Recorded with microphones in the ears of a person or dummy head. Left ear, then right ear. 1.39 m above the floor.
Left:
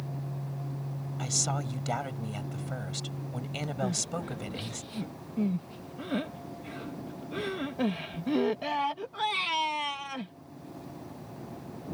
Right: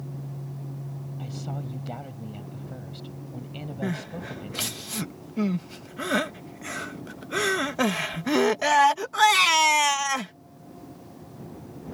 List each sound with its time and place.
1.2 s a woman speaking: 55° left (ahead or behind)
3.8 s crying: 60° right (ahead or behind)